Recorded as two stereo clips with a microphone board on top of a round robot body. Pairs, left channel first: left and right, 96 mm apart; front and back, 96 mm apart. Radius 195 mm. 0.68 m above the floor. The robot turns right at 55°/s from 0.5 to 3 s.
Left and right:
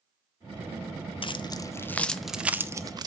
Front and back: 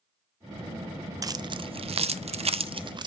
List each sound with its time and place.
1.2 s keys jangling: 125° left, 0.5 m; by 3.1 s 140° right, 0.5 m